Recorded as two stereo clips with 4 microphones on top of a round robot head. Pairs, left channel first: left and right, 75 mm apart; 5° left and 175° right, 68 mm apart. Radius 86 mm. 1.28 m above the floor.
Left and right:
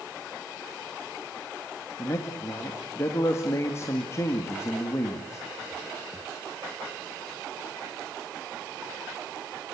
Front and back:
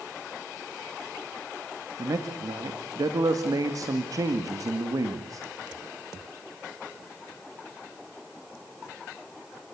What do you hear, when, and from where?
2.0 s a man speaking: 150° left, 2 m